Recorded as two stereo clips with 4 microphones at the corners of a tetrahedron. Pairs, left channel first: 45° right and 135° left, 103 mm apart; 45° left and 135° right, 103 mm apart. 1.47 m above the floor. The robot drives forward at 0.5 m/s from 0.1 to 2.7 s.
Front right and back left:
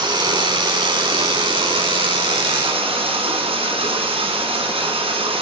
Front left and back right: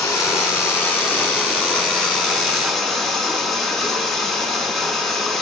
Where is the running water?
100° left, 2.5 m; by 5.4 s 130° left, 3 m.